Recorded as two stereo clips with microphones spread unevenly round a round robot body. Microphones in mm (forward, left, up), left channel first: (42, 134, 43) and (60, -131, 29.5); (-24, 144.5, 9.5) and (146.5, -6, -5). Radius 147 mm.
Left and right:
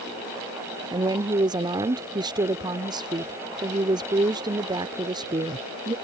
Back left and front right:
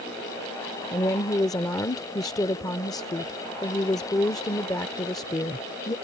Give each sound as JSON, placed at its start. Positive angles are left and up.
{"t": 0.9, "sound": "a woman speaking", "azimuth_deg": -150}